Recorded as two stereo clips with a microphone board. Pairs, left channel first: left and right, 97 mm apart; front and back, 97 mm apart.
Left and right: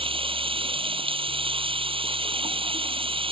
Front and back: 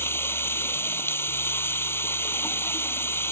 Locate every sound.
0.0 s running water: 65° right